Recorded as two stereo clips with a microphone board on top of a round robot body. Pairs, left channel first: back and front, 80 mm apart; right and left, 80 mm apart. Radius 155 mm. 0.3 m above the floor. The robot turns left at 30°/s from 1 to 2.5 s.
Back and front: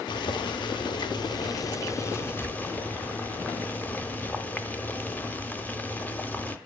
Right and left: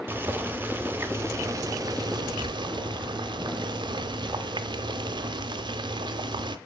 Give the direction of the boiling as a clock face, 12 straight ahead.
7 o'clock.